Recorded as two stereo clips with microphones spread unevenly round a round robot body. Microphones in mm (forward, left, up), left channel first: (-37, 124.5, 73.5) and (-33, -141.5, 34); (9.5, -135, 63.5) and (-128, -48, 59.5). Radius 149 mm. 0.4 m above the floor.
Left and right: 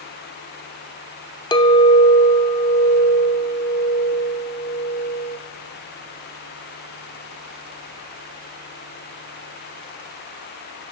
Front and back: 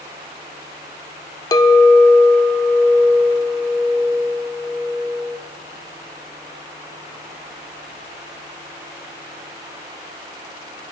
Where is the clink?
15° left, 0.5 m.